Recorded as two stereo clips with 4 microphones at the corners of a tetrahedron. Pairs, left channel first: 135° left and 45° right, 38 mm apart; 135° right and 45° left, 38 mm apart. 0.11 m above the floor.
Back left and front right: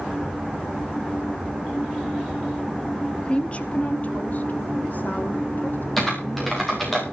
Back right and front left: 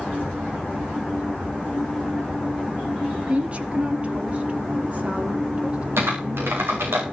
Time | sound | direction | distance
3.2 | a woman speaking | 85° left | 1.9 m
6.0 | typing on a keyboard | 50° left | 7.5 m